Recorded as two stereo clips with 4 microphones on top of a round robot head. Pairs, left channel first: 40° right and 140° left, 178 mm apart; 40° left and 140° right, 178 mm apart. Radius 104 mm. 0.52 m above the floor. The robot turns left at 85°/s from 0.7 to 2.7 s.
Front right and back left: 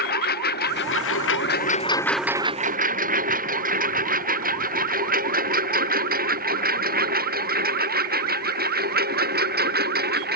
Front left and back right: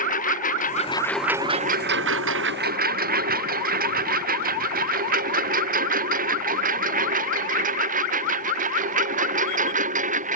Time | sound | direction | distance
0.0 | a lawn mower | 5° right | ?